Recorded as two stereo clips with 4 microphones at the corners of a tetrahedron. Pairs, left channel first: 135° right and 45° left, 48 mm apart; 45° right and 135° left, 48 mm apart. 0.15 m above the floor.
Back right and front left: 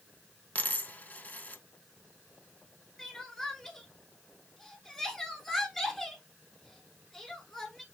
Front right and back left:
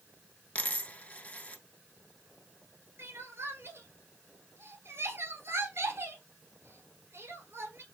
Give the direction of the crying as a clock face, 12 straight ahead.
7 o'clock.